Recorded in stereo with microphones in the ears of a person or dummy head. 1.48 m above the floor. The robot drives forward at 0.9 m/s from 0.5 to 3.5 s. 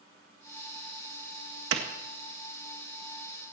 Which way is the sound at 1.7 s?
85° right.